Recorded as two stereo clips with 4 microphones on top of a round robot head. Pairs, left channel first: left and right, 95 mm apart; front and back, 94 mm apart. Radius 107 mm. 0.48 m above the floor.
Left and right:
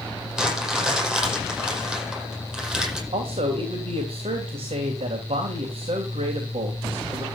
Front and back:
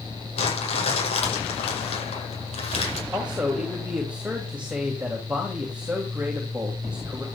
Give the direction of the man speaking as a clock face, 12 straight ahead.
3 o'clock.